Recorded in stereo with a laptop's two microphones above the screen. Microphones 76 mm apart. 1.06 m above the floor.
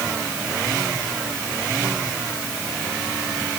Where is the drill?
I don't hear a drill.